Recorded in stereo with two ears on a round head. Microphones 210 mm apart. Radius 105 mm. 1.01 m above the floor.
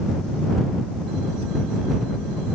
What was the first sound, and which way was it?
Only background noise.